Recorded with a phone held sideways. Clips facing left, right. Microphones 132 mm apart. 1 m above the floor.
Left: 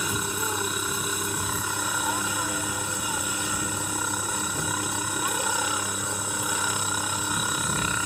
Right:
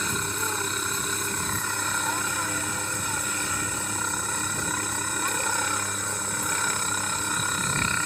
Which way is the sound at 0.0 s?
10° left (ahead or behind).